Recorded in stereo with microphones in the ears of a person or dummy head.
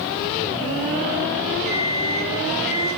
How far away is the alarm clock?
About 3.5 m.